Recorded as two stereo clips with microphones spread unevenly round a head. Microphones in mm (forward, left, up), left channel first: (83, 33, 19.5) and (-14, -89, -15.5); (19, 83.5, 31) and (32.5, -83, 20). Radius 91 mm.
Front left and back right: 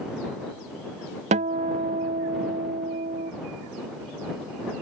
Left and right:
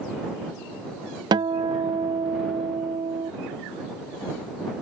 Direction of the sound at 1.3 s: 145° right.